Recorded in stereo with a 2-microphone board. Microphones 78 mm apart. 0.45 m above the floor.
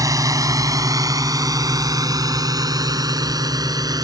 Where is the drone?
50° right (ahead or behind); by 4.0 s 55° right (ahead or behind).